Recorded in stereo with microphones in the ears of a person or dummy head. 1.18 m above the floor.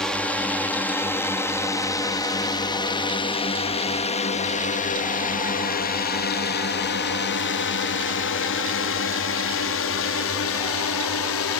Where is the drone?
5° left (ahead or behind); by 11.6 s 70° left (ahead or behind).